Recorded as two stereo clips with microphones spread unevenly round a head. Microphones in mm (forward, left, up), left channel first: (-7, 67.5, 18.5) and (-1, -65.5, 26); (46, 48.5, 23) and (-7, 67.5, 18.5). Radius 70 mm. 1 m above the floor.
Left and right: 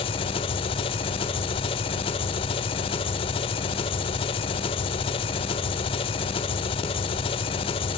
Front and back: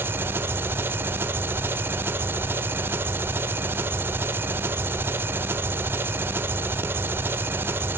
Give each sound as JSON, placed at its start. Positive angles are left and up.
{"t": 0.0, "sound": "an engine running", "azimuth_deg": 130, "distance_m": 0.8}